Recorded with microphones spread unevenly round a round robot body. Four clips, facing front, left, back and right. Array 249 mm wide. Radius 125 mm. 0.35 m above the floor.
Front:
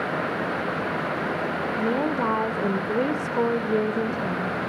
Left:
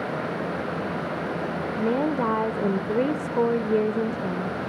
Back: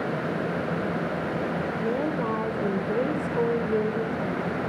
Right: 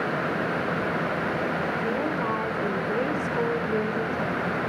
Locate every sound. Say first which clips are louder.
1.8 s a woman speaking: left 3 dB, front 4 dB; 90° left, 1.0 m